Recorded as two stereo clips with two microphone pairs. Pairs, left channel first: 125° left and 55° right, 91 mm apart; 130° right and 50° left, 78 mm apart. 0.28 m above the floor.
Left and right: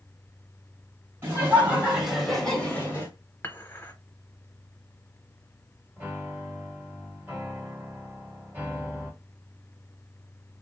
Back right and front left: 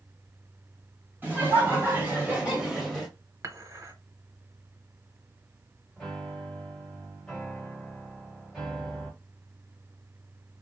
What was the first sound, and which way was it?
Laughter, 5° right.